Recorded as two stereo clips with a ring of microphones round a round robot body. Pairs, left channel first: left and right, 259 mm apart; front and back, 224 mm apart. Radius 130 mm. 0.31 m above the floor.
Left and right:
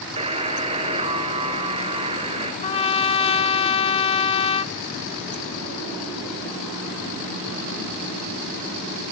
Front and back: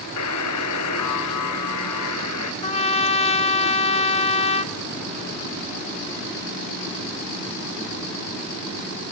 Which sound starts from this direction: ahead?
A buzzer, at 0.2 s.